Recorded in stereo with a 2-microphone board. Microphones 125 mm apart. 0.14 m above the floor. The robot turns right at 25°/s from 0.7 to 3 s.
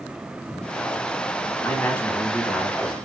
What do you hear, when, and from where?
1.6 s a man speaking: 145° left, 1.5 m; by 3.0 s straight behind, 1.5 m